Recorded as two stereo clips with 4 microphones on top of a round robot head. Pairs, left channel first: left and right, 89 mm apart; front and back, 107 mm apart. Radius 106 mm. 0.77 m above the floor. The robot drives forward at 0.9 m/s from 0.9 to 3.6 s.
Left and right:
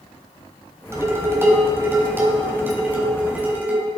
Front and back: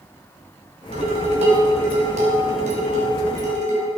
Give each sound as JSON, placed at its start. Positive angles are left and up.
{"t": 0.9, "sound": "dishes clattering", "azimuth_deg": -150, "distance_m": 3.5}